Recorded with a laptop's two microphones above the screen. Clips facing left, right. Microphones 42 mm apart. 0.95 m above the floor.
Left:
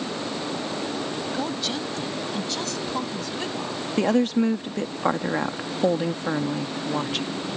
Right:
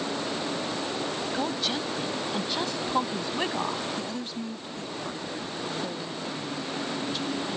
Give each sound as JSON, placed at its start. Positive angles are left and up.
{"t": 1.3, "sound": "a woman speaking", "side_deg": 0}
{"t": 4.0, "sound": "a woman speaking", "side_deg": 70}